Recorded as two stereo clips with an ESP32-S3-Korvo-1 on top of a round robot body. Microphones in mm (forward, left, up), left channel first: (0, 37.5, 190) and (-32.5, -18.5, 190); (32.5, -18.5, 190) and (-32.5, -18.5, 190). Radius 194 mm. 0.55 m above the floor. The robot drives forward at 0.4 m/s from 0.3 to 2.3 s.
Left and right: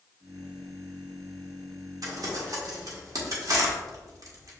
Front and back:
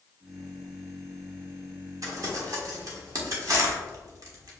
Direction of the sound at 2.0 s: 145° right.